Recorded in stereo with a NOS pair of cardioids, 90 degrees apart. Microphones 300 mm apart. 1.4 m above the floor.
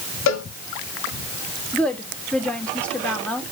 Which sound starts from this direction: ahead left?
A cowbell, at 0.3 s.